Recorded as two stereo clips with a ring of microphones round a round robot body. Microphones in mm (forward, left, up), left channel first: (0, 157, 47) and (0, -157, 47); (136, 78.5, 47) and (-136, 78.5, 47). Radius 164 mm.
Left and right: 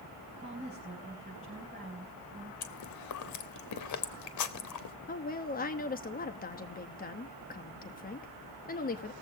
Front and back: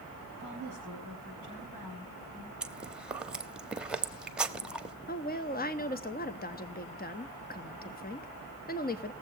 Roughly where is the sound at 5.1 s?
Ahead left.